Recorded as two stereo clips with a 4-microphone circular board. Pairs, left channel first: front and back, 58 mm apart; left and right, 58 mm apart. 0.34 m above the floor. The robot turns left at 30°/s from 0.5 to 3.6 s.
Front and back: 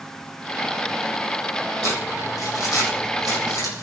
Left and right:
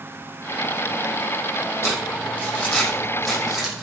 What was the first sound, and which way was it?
Crumpling, 40° left.